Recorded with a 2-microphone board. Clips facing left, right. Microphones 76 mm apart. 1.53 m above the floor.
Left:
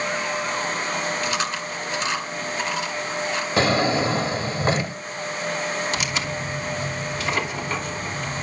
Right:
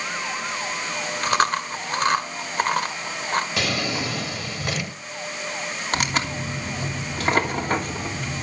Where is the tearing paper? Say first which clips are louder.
Right 2 dB; 50° right (ahead or behind), 3 m.